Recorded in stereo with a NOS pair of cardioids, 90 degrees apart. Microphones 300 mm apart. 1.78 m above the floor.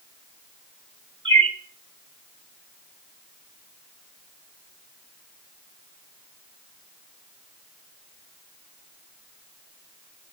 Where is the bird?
15° right, 1.4 m.